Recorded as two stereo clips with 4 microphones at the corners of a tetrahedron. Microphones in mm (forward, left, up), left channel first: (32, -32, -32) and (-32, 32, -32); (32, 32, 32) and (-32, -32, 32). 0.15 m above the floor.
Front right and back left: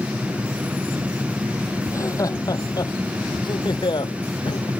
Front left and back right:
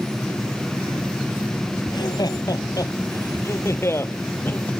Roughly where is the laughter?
Ahead.